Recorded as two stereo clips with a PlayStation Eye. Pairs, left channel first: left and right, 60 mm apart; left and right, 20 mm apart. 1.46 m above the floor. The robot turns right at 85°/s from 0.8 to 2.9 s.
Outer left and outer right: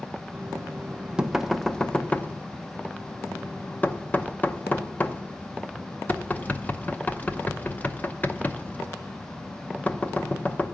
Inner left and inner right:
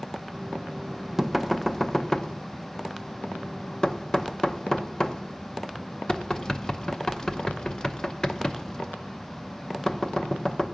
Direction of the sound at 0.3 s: 30° right (ahead or behind).